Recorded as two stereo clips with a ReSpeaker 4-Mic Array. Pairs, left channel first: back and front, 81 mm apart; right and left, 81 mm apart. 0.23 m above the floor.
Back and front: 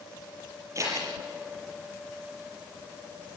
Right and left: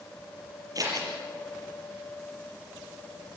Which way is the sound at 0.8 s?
50° left.